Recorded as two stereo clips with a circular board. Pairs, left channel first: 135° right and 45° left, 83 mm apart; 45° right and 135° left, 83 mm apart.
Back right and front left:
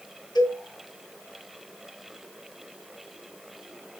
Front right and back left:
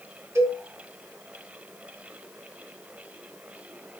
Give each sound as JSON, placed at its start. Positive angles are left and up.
{"t": 0.3, "sound": "a cowbell", "azimuth_deg": -170, "distance_m": 2.5}